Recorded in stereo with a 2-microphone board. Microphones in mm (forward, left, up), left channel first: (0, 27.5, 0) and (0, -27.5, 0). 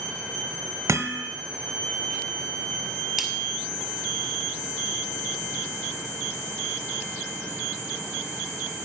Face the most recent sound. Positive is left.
turn(degrees=-5)  # may be behind; listen again after turning